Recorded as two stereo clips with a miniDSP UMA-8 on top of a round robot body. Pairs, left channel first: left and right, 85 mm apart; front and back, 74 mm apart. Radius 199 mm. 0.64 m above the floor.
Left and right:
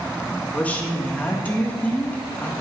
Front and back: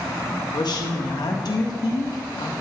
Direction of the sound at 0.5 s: 20° left.